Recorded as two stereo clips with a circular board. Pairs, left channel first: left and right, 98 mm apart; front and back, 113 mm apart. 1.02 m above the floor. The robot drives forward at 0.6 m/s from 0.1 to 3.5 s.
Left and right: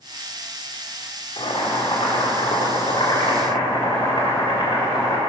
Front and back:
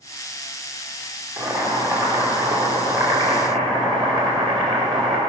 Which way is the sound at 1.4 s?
115° left.